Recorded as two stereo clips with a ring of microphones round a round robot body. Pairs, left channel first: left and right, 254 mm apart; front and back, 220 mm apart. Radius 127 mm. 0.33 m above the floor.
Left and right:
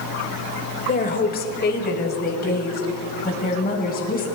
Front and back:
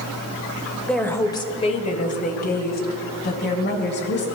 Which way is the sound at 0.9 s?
85° left.